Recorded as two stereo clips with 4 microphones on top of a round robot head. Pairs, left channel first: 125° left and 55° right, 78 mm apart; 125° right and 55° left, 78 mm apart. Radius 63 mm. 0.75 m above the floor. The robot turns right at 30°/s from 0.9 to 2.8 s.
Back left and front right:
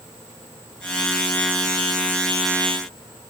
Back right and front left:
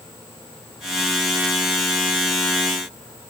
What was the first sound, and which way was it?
Only background noise.